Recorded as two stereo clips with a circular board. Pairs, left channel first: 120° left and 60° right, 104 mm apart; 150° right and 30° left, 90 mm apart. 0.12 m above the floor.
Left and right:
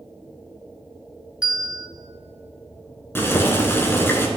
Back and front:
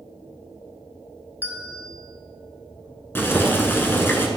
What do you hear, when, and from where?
1.4 s a bell: 10° left, 1.5 m
3.1 s boiling: 165° left, 1.1 m